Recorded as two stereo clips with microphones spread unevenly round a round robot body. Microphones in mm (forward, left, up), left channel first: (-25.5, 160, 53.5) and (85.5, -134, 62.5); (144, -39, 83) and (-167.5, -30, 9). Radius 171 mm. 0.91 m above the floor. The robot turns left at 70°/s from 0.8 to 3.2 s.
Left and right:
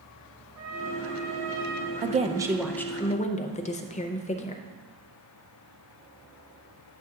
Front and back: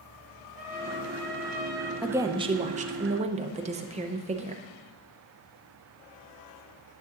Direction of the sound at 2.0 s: 115° right.